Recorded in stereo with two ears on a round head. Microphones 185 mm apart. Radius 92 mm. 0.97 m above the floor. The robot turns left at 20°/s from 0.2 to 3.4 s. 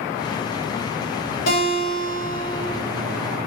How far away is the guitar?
About 3 m.